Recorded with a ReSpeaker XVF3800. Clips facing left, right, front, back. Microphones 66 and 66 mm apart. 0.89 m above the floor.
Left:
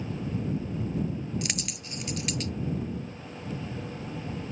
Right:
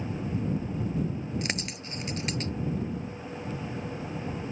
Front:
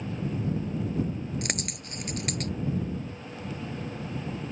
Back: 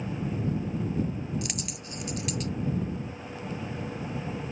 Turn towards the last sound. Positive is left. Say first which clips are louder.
# right 2 dB, front 2 dB
turn(degrees=-35)